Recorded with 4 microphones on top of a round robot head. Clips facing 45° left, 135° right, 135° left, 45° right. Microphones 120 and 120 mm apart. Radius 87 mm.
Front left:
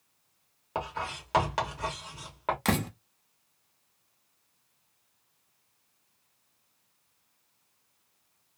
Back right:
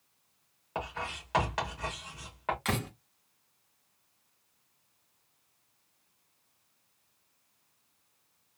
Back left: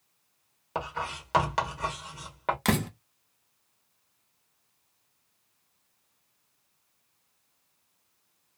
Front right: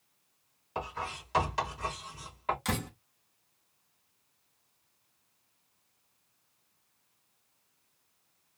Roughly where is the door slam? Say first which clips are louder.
Front left 5 dB, back left 7 dB; left.